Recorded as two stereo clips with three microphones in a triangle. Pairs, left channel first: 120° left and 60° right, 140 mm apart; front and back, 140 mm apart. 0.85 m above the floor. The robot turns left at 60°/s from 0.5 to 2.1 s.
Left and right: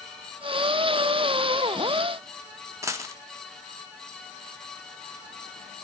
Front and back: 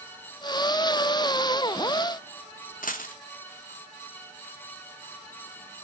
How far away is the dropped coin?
About 0.8 m.